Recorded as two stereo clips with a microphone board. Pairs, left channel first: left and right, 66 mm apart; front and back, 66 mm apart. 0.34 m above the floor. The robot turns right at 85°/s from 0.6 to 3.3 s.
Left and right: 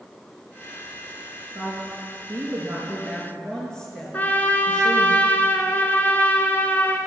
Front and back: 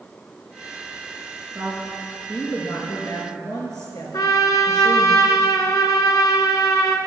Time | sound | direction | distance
1.6 | a woman speaking | 135° right | 4.5 m
4.1 | a trumpet | 25° left | 1.6 m